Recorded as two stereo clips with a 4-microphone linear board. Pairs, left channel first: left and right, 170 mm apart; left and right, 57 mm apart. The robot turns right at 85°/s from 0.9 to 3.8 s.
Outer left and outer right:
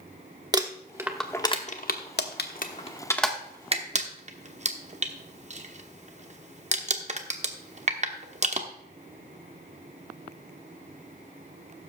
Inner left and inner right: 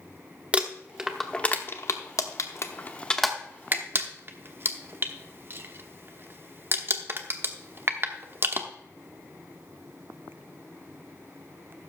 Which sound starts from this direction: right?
Crumpling, at 0.5 s.